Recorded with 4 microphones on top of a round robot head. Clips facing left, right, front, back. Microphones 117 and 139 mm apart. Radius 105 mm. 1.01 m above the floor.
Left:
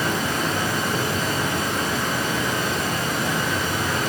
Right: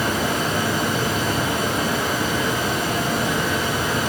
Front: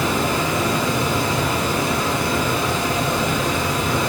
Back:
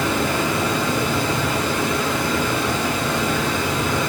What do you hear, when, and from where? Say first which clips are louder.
0.0 s running water: right 2 dB, even; 65° right, 2.5 m